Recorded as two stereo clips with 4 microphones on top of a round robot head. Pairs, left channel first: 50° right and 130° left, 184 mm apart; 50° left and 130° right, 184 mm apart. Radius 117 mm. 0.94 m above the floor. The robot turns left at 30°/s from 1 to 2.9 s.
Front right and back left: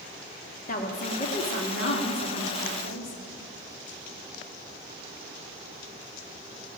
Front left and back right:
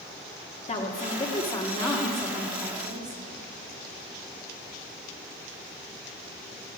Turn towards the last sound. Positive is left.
turn(degrees=-60)